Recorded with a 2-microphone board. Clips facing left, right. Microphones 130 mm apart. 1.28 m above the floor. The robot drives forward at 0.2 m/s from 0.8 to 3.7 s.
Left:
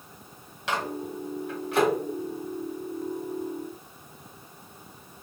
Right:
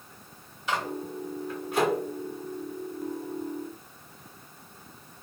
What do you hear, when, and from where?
0.7 s a microwave: 85° left, 1.3 m; by 1.9 s 75° left (ahead or behind), 1.4 m